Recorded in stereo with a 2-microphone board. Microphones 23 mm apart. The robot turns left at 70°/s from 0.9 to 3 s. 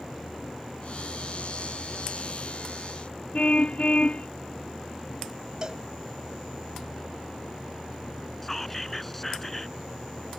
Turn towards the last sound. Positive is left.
turn(degrees=10)  # may be behind; listen again after turning